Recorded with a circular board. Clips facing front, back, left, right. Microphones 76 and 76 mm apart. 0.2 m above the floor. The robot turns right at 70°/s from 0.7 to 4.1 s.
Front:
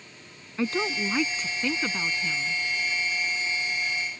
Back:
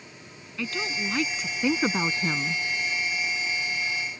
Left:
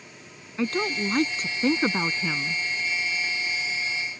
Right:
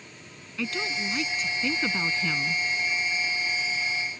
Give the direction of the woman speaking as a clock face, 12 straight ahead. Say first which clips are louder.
Front 4 dB, left 5 dB; 10 o'clock.